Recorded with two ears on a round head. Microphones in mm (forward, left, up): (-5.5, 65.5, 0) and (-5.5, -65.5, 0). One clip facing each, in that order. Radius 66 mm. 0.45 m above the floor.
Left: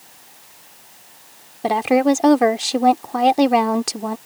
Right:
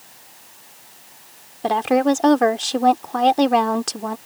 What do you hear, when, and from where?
1.6 s a woman speaking: 5° left (ahead or behind)